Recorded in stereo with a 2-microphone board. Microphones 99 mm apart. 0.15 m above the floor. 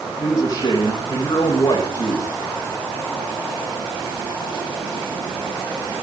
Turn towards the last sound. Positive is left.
turn(degrees=35)  # may be behind; listen again after turning